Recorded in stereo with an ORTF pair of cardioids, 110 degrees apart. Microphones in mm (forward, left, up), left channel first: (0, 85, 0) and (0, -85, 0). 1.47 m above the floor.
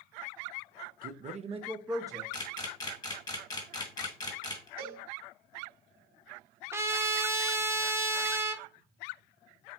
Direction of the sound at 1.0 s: 55° right.